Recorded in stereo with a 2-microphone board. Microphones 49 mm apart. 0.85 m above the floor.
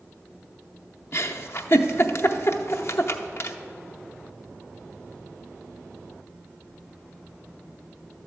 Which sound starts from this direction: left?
A giggle, at 1.1 s.